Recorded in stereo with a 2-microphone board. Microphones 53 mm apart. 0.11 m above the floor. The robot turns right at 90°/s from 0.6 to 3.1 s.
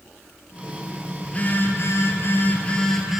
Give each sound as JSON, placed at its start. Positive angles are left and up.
{"t": 1.2, "sound": "a phone buzzing", "azimuth_deg": 20, "distance_m": 1.3}